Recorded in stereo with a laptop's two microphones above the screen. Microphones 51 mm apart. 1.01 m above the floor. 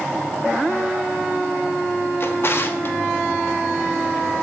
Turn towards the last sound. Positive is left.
turn(degrees=50)  # may be behind; listen again after turning